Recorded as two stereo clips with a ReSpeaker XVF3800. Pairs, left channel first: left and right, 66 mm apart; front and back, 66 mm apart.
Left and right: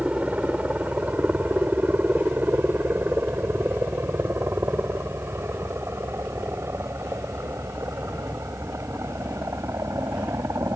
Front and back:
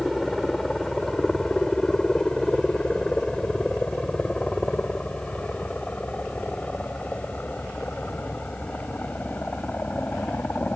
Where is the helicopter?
85° right; by 10.8 s 60° right.